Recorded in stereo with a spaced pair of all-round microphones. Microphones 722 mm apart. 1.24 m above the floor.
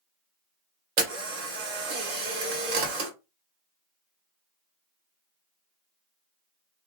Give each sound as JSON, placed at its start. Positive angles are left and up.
{"t": 1.0, "sound": "a camera shutter", "side_deg": -60, "distance_m": 1.1}